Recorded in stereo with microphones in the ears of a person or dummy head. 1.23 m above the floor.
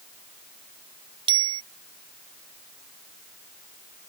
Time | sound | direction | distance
1.3 | a bicycle bell | 30° right (ahead or behind) | ?